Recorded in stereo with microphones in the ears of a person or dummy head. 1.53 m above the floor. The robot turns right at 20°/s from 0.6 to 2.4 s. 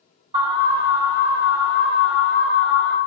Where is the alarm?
25° right, 3.5 m; by 3.0 s 10° left, 3.5 m.